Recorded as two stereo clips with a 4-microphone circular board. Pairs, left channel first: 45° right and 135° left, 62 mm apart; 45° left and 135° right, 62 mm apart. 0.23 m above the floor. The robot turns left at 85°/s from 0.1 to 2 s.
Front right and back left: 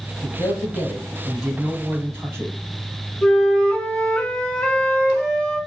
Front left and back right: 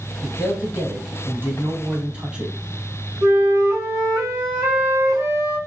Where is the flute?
115° right, 3 m.